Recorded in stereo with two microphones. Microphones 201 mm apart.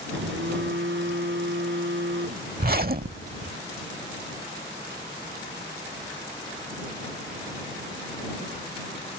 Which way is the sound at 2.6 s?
50° right (ahead or behind).